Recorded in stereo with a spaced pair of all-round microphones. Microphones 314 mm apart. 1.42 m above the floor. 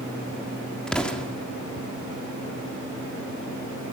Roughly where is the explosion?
Centre.